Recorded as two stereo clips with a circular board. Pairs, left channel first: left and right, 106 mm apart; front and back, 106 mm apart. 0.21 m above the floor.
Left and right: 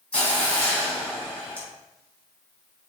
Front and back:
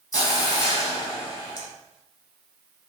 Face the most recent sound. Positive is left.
turn(degrees=20)